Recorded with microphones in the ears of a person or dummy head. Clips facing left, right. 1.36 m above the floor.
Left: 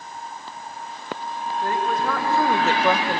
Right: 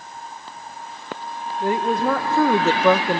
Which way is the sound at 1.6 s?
25° right (ahead or behind).